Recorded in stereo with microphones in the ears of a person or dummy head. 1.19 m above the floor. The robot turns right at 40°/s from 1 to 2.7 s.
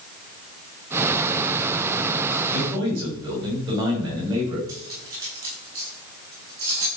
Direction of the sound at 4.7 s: 20° right (ahead or behind).